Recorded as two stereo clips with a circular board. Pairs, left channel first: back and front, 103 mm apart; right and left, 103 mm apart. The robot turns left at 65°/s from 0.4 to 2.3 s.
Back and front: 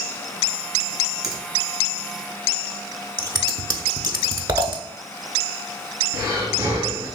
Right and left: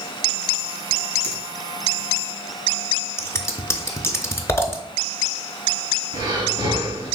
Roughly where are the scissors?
Ahead right.